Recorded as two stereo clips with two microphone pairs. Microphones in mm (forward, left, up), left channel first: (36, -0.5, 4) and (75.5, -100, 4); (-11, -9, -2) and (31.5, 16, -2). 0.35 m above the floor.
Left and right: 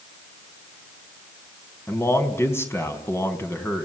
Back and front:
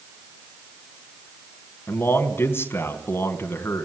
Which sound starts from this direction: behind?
A man speaking, at 1.9 s.